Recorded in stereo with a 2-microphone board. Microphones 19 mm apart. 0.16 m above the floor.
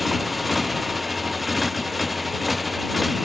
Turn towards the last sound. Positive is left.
turn(degrees=0)  # may be behind; listen again after turning